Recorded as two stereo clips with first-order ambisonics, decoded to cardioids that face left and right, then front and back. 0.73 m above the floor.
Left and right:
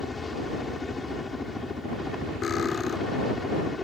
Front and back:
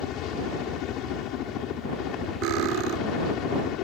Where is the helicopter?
15° left.